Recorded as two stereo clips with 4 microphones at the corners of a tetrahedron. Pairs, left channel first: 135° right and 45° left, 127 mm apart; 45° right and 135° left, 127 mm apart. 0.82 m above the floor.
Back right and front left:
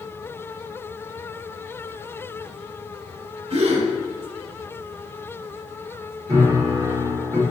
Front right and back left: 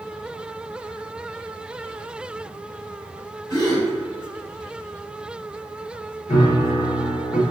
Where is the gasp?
10° left, 1.0 m.